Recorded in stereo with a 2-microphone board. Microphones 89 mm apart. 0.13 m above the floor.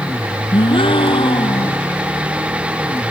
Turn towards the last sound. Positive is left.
turn(degrees=75)  # may be behind; listen again after turning